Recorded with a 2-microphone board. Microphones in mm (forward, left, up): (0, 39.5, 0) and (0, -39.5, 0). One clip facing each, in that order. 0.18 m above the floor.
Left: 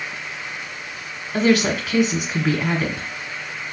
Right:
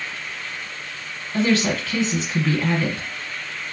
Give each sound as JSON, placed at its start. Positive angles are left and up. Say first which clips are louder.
{"t": 1.3, "sound": "a woman speaking", "louder": "left 2 dB", "side_deg": 15, "distance_m": 1.5}